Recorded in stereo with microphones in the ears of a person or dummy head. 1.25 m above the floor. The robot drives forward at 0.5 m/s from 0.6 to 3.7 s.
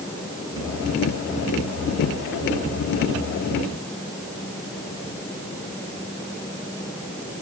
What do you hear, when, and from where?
Only background noise.